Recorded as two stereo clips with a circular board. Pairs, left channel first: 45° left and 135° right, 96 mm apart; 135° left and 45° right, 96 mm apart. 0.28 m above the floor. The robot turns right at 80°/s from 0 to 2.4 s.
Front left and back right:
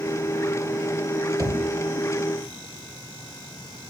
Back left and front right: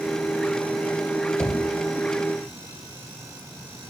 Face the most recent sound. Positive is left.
turn(degrees=-90)